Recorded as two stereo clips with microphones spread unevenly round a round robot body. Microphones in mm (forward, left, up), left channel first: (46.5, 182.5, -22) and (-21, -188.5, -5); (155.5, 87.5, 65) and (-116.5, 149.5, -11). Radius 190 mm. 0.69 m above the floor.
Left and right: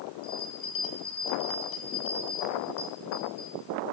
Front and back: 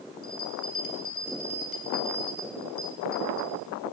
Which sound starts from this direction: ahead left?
A bell, at 0.2 s.